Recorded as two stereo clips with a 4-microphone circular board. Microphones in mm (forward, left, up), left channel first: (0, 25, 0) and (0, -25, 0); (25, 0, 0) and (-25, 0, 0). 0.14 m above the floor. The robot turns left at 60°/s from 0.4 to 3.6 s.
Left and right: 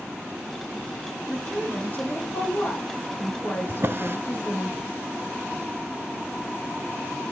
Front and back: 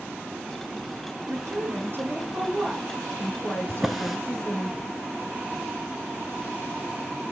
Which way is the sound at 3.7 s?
95° right.